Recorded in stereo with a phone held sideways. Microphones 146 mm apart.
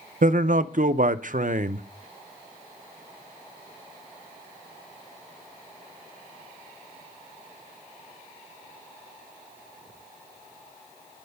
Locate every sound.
0.2 s a man speaking: 65° right (ahead or behind), 0.6 m